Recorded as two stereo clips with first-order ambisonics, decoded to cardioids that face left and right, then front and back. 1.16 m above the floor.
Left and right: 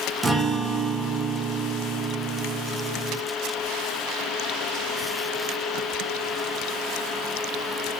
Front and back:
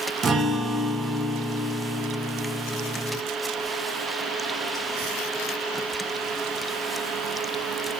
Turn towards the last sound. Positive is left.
turn(degrees=-155)